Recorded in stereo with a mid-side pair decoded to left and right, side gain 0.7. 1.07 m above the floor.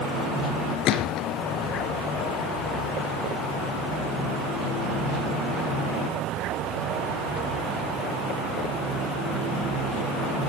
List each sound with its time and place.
0.8 s a gunshot: 50° left, 3 m